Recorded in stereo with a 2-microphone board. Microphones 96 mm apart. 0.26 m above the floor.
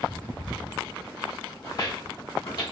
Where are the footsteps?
40° left (ahead or behind), 2 m.